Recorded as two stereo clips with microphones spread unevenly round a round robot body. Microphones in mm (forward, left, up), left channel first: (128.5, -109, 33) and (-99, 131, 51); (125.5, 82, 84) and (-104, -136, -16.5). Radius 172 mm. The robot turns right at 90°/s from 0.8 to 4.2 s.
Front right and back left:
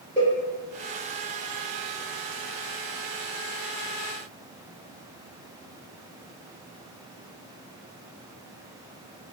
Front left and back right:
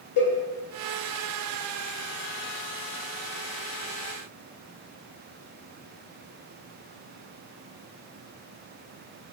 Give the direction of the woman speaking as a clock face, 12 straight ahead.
I don't hear a woman speaking.